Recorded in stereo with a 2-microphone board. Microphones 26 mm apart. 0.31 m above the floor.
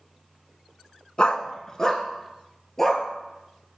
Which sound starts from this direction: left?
A dog barking, at 1.2 s.